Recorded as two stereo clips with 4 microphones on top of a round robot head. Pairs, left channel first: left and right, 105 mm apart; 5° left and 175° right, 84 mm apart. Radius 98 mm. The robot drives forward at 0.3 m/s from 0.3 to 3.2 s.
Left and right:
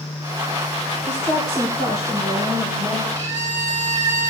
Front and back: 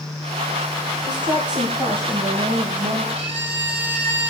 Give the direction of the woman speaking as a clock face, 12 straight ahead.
7 o'clock.